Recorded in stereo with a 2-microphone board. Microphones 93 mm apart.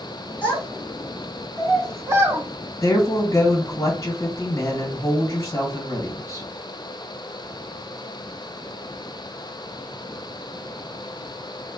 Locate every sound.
0.4 s a child speaking: 30° right (ahead or behind), 2.5 m; by 2.4 s 25° right (ahead or behind), 0.7 m
2.8 s a woman speaking: 35° left (ahead or behind), 1.5 m